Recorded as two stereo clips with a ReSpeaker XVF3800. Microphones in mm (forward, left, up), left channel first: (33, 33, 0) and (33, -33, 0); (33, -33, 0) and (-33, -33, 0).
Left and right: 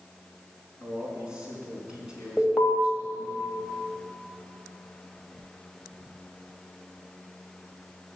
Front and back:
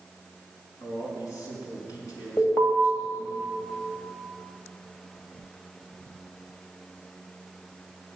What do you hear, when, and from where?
0.8 s a man speaking: 15° right, 4.5 m
2.4 s an alarm: 20° right, 3 m